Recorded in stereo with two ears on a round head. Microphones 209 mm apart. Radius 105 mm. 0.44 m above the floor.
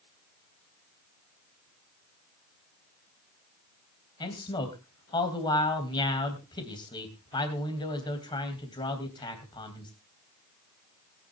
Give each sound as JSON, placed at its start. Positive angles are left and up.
{"t": 4.2, "sound": "a man speaking", "side_deg": 20, "distance_m": 3.0}